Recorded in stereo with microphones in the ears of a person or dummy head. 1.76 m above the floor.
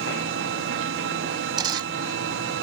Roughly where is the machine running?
Right.